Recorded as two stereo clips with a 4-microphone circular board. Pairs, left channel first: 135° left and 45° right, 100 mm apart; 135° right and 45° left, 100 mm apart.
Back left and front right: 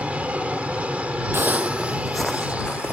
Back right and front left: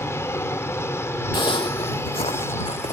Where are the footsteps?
110° right; by 2.9 s 145° right.